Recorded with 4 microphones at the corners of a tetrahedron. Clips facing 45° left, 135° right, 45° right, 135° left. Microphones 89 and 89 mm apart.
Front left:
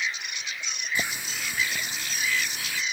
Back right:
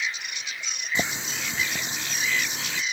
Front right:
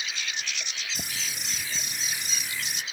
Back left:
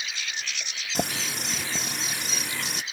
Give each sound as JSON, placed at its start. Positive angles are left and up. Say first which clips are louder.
{"t": 0.9, "sound": "a running tap", "louder": "back right 3 dB, back left 8 dB", "azimuth_deg": 160}